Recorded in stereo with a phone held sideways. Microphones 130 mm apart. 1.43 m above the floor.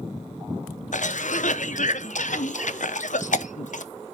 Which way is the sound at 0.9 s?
70° left (ahead or behind).